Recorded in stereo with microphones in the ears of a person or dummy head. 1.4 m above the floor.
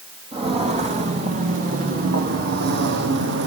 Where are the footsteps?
25° right (ahead or behind), 3.5 m; by 3.5 s 55° right (ahead or behind), 3 m.